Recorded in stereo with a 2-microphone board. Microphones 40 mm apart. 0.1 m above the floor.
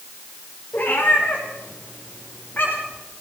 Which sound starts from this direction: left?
A cat meowing, at 0.7 s.